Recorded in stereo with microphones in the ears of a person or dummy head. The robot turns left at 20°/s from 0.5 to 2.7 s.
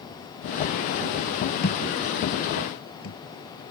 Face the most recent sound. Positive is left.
turn(degrees=60)  # may be behind; listen again after turning